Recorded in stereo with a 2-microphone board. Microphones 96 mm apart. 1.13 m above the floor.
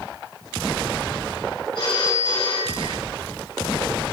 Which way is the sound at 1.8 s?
60° left (ahead or behind).